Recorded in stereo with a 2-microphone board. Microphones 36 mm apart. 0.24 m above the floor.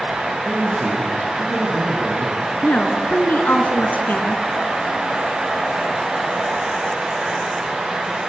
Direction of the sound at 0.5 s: 35° right (ahead or behind).